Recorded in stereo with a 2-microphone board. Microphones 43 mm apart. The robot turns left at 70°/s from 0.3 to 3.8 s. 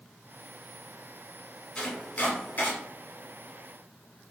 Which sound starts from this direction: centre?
Chopping, at 1.8 s.